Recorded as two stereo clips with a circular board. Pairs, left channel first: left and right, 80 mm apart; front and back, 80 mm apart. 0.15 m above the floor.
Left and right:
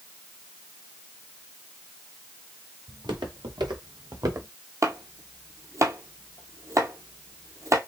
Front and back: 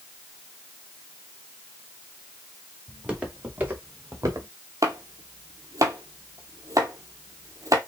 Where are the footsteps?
100° right, 3.5 m; by 4.5 s 140° right, 1.8 m.